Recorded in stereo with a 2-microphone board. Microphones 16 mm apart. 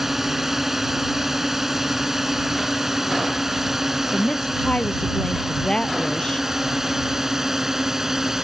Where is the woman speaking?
55° left (ahead or behind).